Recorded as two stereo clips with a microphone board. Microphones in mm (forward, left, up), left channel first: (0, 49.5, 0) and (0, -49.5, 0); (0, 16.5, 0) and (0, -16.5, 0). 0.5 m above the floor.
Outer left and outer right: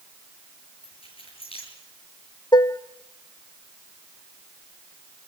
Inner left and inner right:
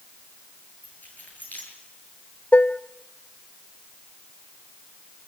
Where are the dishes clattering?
40° left (ahead or behind), 0.6 m.